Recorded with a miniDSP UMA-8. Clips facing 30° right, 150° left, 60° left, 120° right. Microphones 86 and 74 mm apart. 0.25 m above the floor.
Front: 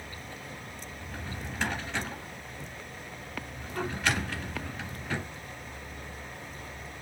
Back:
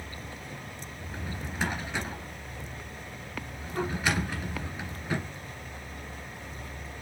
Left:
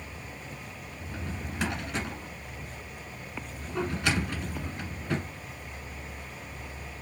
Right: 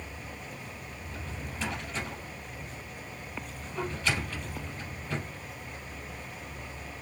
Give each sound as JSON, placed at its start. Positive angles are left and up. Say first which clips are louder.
{"t": 1.0, "sound": "a drawer", "louder": "back 2 dB, left 4 dB", "azimuth_deg": 70, "distance_m": 2.0}